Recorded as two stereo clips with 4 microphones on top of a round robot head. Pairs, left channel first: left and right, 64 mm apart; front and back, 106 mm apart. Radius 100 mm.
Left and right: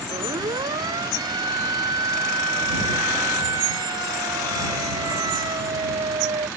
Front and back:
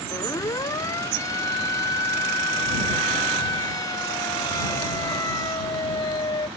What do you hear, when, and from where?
0.1 s a siren: 65° right